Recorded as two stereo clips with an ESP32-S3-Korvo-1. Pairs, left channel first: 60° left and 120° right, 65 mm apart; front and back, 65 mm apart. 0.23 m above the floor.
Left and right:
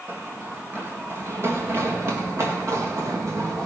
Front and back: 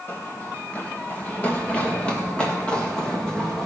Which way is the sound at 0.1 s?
55° right.